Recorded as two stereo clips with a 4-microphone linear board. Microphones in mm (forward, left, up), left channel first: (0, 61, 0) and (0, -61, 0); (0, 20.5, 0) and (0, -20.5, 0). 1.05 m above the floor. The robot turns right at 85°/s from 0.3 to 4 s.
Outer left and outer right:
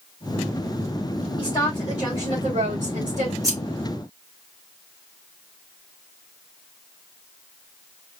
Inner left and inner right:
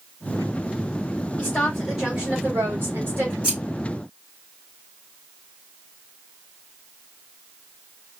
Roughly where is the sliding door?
No sliding door in this recording.